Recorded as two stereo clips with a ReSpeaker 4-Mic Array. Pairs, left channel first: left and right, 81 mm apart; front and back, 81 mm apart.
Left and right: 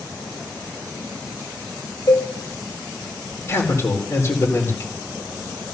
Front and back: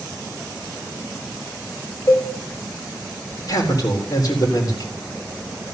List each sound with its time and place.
2.1 s a cowbell: 50° left, 3.5 m
3.5 s a man speaking: 35° left, 4 m